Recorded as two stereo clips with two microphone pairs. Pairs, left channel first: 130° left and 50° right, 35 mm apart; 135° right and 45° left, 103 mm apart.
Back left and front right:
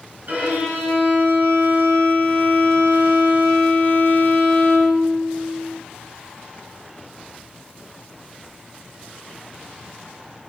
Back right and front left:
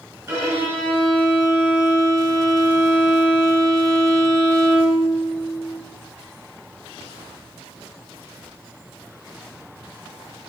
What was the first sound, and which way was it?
A violin, 20° right.